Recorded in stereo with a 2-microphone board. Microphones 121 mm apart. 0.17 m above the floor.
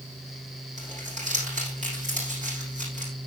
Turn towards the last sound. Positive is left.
turn(degrees=-80)